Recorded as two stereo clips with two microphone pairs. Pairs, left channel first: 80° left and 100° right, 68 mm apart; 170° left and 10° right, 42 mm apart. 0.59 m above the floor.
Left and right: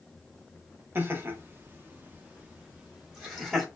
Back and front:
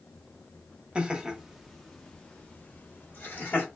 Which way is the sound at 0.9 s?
65° right.